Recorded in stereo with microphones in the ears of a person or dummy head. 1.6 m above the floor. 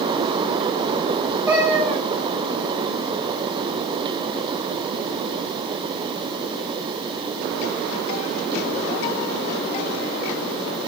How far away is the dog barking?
No dog barking in this recording.